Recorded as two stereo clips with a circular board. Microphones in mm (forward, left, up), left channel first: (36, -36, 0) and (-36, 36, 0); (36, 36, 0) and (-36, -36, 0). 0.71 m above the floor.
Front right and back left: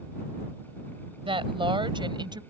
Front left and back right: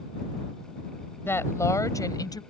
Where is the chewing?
No chewing in this recording.